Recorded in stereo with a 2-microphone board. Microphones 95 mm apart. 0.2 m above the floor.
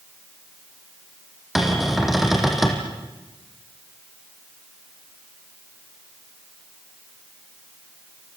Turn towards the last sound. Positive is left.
turn(degrees=-5)  # may be behind; listen again after turning